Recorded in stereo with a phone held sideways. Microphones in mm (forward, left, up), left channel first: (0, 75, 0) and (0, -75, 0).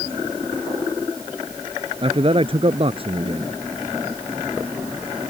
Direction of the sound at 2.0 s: 40° right (ahead or behind).